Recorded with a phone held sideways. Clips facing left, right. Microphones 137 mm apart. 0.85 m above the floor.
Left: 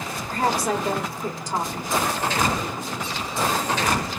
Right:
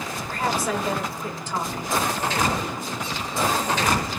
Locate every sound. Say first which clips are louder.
0.3 s a woman speaking: left 2 dB; 40° left (ahead or behind), 1.4 m